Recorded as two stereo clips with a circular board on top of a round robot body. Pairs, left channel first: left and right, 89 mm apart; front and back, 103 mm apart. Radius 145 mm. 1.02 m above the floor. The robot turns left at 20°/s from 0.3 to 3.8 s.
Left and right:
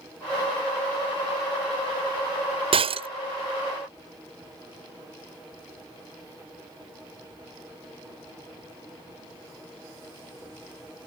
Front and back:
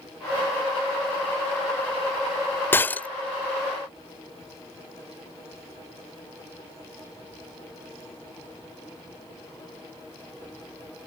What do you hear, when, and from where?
2.7 s breaking glass: 70° right; by 3.1 s 75° right